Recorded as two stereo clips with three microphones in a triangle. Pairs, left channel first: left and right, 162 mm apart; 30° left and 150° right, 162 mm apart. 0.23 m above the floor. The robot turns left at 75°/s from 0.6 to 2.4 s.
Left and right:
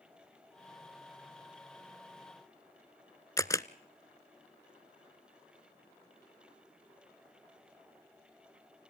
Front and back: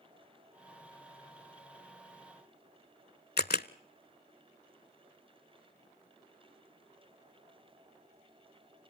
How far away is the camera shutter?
About 0.6 m.